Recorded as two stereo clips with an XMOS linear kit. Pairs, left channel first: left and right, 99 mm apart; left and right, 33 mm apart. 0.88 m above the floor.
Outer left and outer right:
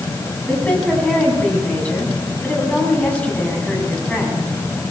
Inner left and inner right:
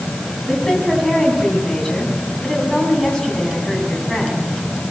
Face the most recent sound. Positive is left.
turn(degrees=15)  # may be behind; listen again after turning